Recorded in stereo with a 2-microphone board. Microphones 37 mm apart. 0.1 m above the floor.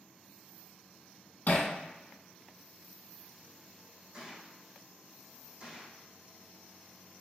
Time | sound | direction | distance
1.5 | hammering | 45° left (ahead or behind) | 2 m
4.1 | a gunshot | 25° right (ahead or behind) | 2.5 m